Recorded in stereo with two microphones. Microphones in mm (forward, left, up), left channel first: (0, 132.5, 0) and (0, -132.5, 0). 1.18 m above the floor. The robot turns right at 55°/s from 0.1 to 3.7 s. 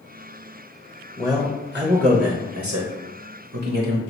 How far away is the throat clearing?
I don't hear throat clearing.